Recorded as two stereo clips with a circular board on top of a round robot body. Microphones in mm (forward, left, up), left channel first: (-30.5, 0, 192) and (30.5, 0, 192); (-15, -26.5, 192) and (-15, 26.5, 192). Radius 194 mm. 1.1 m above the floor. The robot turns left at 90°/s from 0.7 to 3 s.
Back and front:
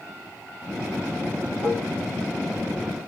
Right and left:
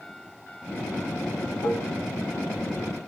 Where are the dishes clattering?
60° right, 1.7 m; by 1.9 s 85° right, 1.7 m.